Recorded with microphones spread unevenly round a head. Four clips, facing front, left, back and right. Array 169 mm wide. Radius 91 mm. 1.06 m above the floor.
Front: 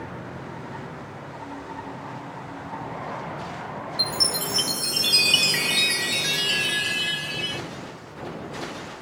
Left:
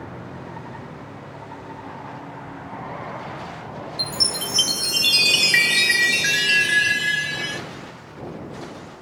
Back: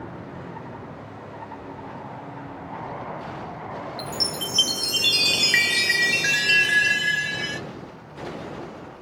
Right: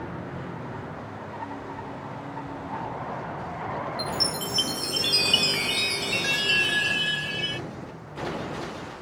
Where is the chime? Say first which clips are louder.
Right 1 dB, front 1 dB; 120° left.